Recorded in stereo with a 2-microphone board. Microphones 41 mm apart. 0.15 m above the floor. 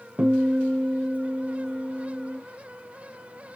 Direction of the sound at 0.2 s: 30° right (ahead or behind).